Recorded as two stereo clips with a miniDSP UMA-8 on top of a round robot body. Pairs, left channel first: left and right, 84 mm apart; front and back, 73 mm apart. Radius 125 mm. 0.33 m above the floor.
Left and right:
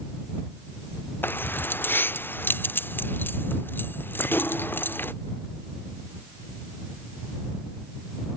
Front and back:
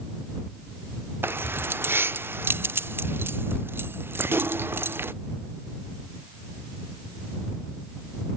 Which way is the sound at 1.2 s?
140° left.